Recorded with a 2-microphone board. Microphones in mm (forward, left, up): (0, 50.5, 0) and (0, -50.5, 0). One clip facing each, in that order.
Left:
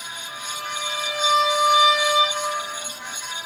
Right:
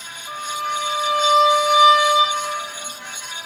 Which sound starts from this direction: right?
A violin, at 0.3 s.